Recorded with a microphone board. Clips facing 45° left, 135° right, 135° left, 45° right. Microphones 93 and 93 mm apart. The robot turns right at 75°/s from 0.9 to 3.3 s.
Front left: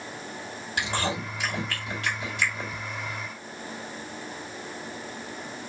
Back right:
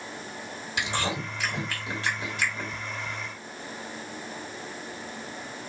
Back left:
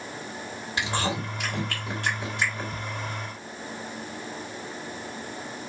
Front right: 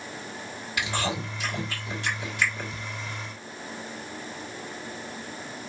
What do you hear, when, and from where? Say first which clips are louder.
0.8 s chewing: front left 1 dB, back left 1 dB; 80° left, 2 m; by 2.7 s 145° right, 2 m